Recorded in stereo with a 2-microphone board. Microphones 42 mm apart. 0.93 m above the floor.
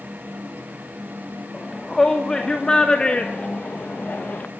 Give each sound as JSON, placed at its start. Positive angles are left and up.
{"t": 1.5, "sound": "a shout", "side_deg": 10, "distance_m": 2.5}